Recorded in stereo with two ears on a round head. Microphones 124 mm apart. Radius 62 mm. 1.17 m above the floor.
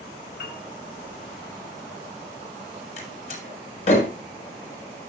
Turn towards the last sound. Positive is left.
turn(degrees=55)  # may be behind; listen again after turning